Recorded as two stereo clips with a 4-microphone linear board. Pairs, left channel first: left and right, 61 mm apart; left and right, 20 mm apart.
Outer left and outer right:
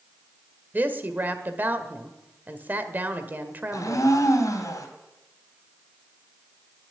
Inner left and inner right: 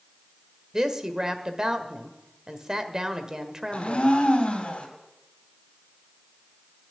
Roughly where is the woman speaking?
Right.